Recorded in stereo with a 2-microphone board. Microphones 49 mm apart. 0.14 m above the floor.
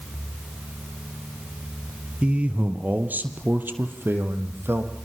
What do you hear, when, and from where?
2.2 s a man speaking: 25° right (ahead or behind), 3 m; by 4.9 s 55° right (ahead or behind), 5 m